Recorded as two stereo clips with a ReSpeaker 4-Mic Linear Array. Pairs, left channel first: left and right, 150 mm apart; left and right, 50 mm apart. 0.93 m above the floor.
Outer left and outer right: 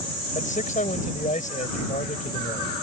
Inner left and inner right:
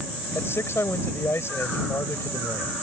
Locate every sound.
0.3 s a man speaking: 55° left (ahead or behind)